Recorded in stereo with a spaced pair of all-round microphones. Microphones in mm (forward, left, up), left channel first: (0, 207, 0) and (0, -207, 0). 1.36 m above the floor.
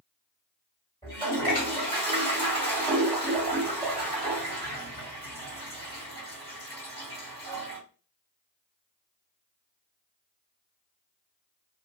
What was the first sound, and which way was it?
A toilet flushing, 15° left (ahead or behind).